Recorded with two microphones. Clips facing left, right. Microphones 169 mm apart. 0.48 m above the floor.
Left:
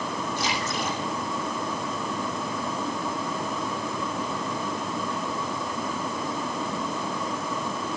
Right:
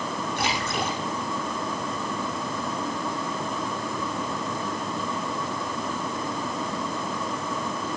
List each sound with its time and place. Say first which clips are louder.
0.4 s a splash: right 3 dB; 70° right (ahead or behind), 7.5 m